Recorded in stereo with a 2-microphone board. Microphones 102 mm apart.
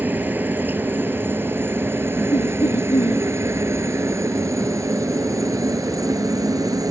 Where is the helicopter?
15° right (ahead or behind); by 6.9 s 35° right (ahead or behind).